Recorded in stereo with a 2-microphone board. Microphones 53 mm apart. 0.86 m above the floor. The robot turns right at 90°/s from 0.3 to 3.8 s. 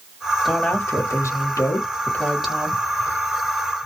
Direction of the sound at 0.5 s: 5° left.